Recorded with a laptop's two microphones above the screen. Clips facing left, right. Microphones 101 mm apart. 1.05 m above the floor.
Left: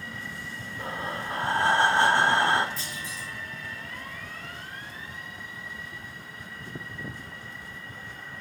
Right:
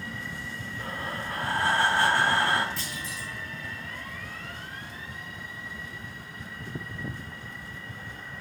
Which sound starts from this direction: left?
Breathing, at 0.8 s.